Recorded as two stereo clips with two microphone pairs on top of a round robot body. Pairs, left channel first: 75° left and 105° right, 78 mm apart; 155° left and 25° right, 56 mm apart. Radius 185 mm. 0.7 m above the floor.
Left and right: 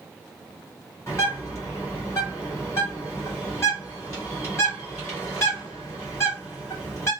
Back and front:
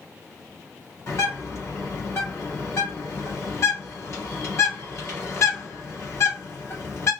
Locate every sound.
1.1 s a bird: 120° left, 2.5 m